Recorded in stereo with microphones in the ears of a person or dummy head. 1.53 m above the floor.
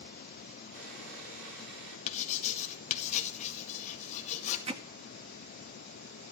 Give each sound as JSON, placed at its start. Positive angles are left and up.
{"t": 0.7, "sound": "sawing", "side_deg": -60, "distance_m": 5.0}
{"t": 2.1, "sound": "writing", "side_deg": 45, "distance_m": 1.9}
{"t": 4.7, "sound": "hammering", "side_deg": -40, "distance_m": 1.1}